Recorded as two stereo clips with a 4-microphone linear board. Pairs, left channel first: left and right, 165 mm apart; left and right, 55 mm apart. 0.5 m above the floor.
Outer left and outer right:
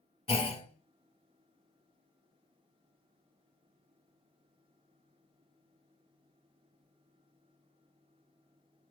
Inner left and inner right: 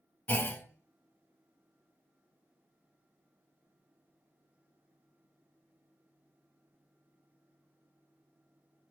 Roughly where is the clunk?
Left.